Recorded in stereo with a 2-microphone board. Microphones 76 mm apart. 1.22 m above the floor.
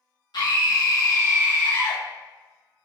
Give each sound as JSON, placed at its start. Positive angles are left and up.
{"t": 0.3, "sound": "a scream", "side_deg": 65, "distance_m": 1.1}